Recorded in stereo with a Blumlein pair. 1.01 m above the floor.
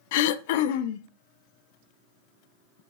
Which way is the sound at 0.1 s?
50° left.